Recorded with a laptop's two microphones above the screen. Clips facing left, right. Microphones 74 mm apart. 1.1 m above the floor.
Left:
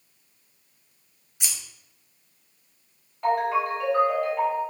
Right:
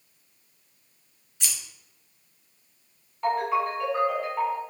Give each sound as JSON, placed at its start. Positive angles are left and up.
{"t": 1.4, "sound": "scissors", "side_deg": 15, "distance_m": 0.7}
{"t": 3.2, "sound": "a ringtone", "side_deg": 0, "distance_m": 1.7}